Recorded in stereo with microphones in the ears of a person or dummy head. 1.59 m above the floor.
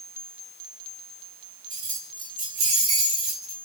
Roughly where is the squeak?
I don't hear a squeak.